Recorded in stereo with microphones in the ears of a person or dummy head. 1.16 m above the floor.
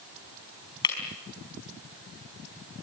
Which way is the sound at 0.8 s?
20° left (ahead or behind).